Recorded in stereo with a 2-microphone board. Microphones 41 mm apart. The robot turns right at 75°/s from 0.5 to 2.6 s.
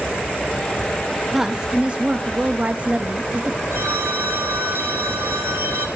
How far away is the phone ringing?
About 2.5 m.